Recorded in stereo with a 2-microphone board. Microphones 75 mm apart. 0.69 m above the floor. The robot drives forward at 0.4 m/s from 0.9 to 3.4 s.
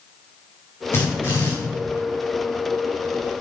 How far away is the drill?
About 5.5 m.